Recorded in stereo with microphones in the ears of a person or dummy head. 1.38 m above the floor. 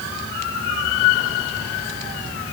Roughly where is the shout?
No shout in this recording.